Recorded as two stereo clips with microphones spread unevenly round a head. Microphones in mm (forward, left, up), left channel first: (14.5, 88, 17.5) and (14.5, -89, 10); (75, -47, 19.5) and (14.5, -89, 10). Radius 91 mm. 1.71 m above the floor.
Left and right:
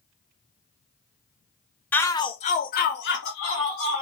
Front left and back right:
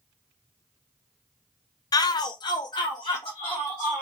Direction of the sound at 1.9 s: 10° left.